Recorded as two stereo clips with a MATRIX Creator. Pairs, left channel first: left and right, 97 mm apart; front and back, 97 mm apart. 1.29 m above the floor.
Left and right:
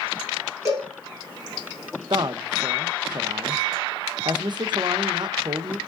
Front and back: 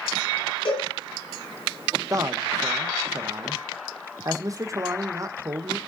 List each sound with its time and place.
0.7 s a cowbell: 30° right, 7.5 m
2.1 s a man speaking: 130° right, 0.9 m